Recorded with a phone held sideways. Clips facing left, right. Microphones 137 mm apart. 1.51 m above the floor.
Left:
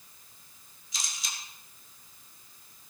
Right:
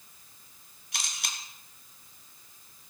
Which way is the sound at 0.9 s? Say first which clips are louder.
Right 2 dB; 75° right (ahead or behind).